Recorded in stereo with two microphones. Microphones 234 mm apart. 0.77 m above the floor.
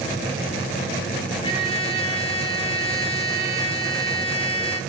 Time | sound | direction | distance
1.4 | a trumpet | 25° left (ahead or behind) | 1.7 m